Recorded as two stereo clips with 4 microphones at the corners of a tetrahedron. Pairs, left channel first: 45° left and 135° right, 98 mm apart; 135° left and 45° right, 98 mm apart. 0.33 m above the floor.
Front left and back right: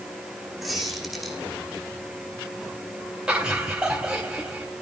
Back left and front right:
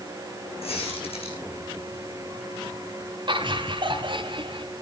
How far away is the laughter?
About 2.5 m.